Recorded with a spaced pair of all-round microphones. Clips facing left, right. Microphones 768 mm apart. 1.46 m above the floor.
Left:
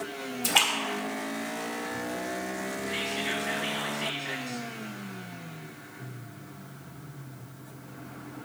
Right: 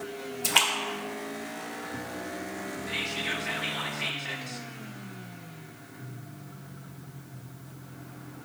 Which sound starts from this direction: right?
Whispering, at 2.9 s.